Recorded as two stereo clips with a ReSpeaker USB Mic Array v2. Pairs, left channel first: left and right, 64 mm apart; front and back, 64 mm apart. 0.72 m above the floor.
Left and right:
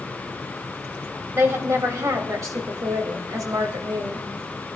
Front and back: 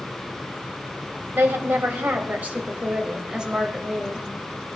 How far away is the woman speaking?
About 3 m.